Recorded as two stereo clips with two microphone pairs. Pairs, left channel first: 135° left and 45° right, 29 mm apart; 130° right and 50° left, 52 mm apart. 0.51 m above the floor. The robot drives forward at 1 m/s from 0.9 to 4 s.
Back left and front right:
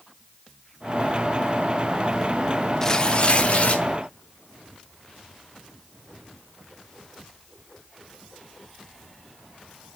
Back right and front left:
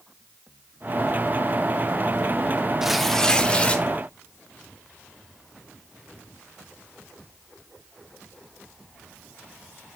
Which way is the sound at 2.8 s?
120° left.